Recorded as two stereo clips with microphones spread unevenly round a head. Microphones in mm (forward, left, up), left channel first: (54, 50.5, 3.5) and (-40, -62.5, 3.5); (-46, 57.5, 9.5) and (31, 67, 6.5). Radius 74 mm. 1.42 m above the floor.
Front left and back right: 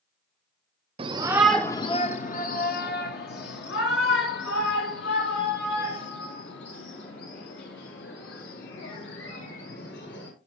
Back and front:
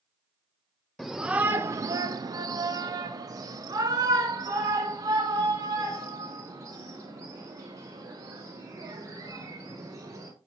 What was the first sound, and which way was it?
A shout, 90° right.